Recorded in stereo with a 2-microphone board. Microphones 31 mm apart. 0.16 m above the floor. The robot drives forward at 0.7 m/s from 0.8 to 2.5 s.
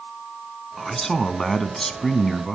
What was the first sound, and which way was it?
A man speaking, 10° left (ahead or behind).